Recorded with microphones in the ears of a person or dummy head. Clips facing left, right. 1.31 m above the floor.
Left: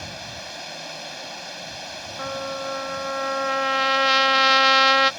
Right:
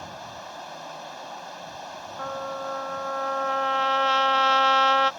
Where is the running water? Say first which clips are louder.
Left 1 dB; 30° left (ahead or behind).